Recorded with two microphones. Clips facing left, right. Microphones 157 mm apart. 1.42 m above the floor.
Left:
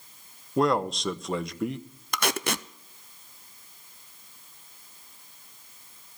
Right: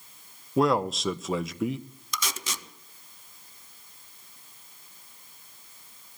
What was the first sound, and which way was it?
A man speaking, centre (ahead or behind).